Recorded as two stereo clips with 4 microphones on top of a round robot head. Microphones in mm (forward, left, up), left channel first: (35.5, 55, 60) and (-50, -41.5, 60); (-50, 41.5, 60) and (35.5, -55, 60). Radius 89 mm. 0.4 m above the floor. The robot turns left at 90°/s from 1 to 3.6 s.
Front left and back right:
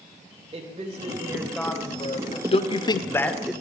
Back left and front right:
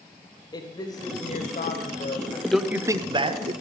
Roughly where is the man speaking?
Ahead left.